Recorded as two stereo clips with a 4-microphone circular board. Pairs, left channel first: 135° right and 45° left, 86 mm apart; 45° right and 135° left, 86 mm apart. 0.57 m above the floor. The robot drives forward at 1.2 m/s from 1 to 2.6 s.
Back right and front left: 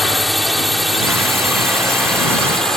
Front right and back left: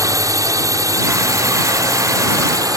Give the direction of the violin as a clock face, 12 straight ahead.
No violin in this recording.